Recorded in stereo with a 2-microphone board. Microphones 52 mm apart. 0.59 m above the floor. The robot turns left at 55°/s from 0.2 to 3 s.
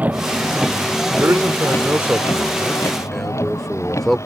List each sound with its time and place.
0.0 s a vehicle: 30° right (ahead or behind); by 4.3 s 65° left (ahead or behind)
1.2 s a man speaking: 90° right; by 4.2 s 170° left